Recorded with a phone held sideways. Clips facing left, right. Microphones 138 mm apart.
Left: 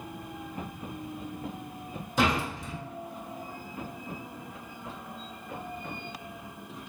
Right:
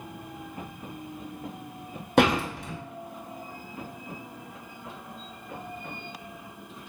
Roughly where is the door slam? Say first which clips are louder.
Right 5 dB; right.